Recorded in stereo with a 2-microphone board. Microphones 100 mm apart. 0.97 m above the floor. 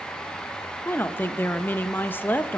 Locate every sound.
0.8 s a woman speaking: 20° left (ahead or behind), 0.6 m